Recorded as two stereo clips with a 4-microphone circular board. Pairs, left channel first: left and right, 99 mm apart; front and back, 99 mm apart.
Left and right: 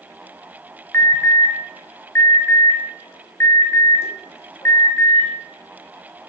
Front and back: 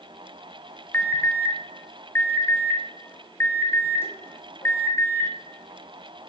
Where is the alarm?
45° left, 1.5 m.